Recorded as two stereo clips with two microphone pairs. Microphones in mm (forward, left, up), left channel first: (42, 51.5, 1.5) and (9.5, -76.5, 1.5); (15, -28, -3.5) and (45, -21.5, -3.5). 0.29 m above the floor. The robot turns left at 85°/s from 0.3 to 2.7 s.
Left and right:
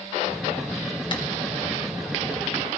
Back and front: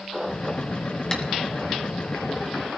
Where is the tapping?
125° left, 2.5 m; by 1.2 s 115° left, 2.5 m.